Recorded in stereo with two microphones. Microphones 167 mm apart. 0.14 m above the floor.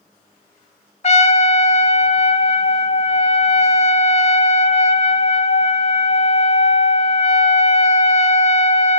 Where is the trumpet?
45° left (ahead or behind), 0.6 m.